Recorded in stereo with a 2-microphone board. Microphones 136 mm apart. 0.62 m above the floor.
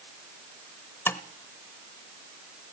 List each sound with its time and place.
1.1 s tapping: 15° left (ahead or behind), 0.6 m